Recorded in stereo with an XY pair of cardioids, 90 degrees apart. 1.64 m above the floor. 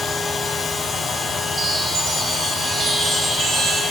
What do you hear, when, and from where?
0.0 s a machine running: 45° left, 1.0 m
1.6 s a chime: 60° right, 1.9 m